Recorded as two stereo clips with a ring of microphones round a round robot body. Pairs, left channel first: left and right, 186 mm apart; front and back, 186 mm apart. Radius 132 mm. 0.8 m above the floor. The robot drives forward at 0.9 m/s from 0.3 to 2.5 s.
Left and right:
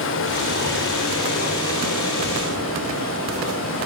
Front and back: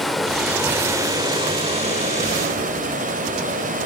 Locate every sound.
0.0 s running water: 90° left, 2 m; by 3.9 s 135° left, 3 m